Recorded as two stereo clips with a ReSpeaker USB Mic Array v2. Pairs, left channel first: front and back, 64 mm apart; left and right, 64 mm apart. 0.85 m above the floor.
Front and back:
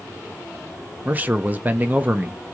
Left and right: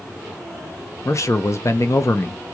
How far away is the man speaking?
About 0.6 m.